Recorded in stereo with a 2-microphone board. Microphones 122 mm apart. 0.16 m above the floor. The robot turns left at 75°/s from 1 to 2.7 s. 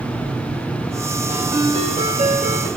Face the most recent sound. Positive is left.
turn(degrees=-120)